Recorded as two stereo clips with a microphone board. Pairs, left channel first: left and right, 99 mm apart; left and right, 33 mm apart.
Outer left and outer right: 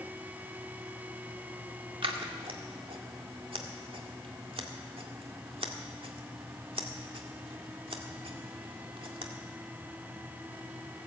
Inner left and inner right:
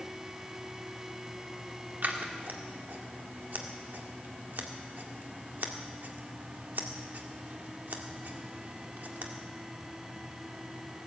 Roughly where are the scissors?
Right.